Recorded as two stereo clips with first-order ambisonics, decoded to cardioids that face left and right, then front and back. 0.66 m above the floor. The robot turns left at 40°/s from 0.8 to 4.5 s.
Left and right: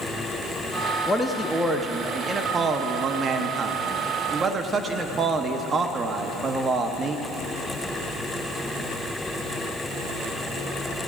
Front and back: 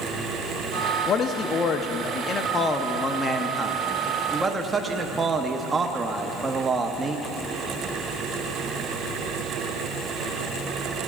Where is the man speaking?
15° left, 0.7 m; by 7.2 s 120° right, 0.7 m.